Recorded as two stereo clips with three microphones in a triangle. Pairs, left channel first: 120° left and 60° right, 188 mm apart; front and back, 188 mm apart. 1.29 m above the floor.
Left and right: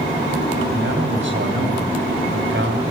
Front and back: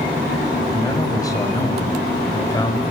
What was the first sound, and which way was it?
A man speaking, 70° right.